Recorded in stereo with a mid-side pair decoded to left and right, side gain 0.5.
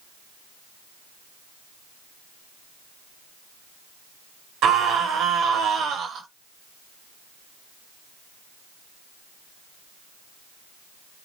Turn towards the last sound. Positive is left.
turn(degrees=-65)